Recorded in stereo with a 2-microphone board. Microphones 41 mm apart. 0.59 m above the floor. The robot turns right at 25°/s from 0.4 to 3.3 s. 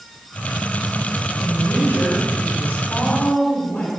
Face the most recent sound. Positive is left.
turn(degrees=140)